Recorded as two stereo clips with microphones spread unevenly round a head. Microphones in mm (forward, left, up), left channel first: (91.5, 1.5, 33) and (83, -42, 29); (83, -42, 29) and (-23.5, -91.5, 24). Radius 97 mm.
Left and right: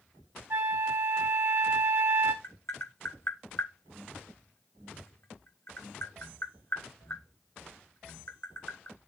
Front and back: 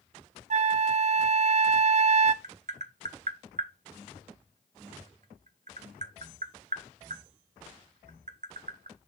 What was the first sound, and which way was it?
A flute, 145° right.